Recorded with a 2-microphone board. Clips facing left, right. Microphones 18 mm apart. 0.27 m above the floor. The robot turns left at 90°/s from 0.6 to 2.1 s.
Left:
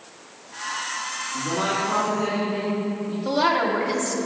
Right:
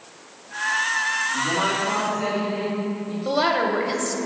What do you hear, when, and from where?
1.3 s a woman speaking: 5° right, 2.5 m; by 3.1 s 75° right, 2.5 m
3.2 s a woman speaking: 20° right (ahead or behind), 0.9 m